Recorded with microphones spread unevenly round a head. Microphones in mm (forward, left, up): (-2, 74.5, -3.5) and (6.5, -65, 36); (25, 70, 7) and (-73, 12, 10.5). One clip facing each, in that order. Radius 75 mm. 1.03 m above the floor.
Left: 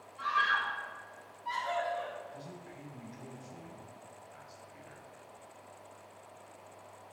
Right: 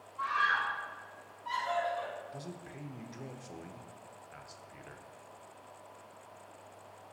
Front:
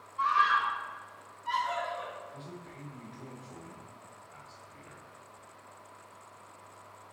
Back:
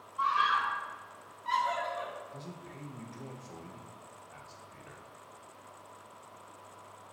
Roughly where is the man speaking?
Right.